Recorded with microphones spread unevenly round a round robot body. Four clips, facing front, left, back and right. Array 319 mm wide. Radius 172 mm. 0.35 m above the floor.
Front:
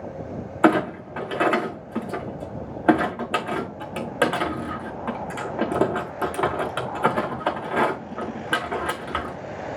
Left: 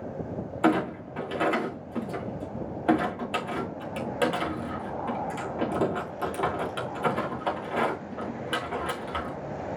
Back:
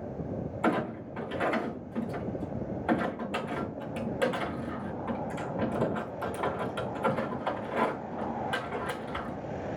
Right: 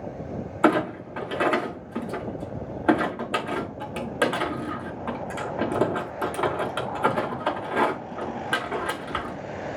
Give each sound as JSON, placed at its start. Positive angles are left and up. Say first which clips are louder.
{"t": 0.6, "sound": "a clunk", "louder": "right 3 dB, front 11 dB", "azimuth_deg": -10, "distance_m": 5.5}